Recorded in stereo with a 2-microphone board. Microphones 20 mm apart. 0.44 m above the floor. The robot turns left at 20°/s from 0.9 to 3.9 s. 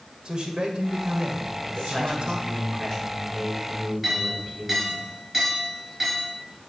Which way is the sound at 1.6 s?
45° left.